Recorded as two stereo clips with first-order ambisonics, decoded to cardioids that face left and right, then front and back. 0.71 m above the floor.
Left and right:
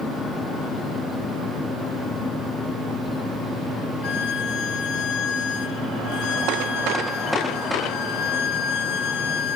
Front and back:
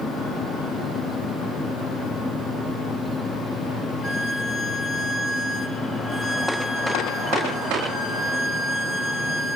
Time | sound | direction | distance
4.0 | a violin | 65° left | 0.7 m